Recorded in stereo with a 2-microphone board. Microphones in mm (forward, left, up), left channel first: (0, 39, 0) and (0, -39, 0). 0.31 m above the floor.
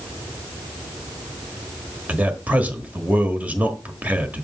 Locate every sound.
2.1 s a man speaking: 20° right (ahead or behind), 1.2 m